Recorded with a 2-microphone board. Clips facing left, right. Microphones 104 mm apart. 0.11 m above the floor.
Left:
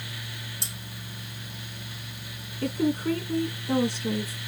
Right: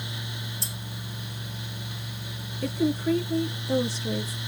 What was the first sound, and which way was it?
Cutlery clinking, 75° left (ahead or behind).